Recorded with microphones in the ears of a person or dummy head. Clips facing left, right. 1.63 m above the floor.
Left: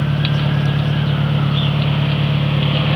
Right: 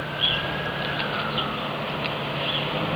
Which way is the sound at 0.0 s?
70° left (ahead or behind).